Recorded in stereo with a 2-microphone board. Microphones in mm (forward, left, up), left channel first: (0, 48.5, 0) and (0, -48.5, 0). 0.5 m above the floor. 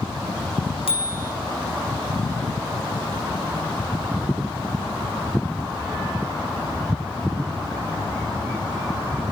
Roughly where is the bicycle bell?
Left.